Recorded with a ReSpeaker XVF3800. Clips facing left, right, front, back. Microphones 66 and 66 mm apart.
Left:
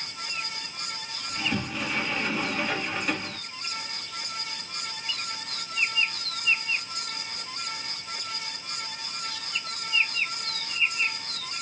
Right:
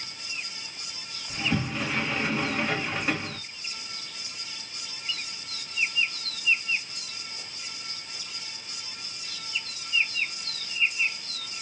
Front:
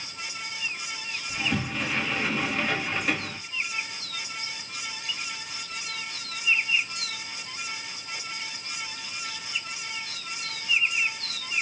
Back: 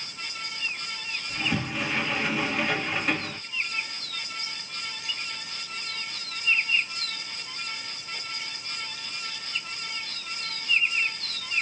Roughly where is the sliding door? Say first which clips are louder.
Right 2 dB, even; right.